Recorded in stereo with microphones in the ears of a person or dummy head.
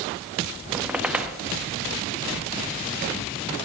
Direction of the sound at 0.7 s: 10° right (ahead or behind).